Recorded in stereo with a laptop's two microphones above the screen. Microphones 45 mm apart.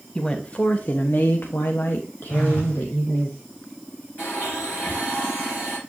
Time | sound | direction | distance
0.1 | a woman speaking | 20° left (ahead or behind) | 1.3 m
2.3 | a phone buzzing | 40° left (ahead or behind) | 4 m
4.2 | a blender | 40° left (ahead or behind) | 5.5 m